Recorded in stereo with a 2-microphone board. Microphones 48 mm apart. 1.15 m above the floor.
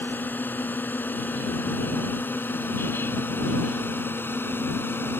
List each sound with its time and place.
0.0 s a drone: 40° left (ahead or behind); by 5.2 s 50° left (ahead or behind)